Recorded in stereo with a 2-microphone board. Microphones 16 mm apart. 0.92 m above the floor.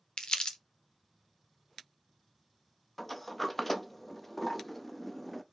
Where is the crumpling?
65° left (ahead or behind), 0.7 m.